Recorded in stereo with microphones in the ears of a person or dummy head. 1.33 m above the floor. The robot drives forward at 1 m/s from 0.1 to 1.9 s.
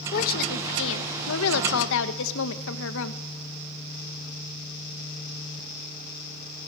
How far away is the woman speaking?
About 2 m.